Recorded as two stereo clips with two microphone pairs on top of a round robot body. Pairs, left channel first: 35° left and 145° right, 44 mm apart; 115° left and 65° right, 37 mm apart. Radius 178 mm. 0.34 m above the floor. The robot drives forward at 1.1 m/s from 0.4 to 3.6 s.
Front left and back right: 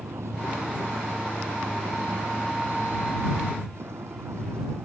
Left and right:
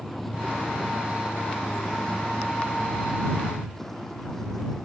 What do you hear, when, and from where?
0.0 s a vehicle: 160° right; by 4.9 s 165° right